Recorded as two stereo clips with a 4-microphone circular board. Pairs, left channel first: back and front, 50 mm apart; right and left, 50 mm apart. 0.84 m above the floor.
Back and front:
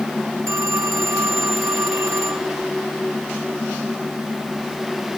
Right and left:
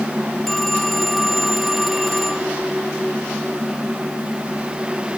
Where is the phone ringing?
5° right.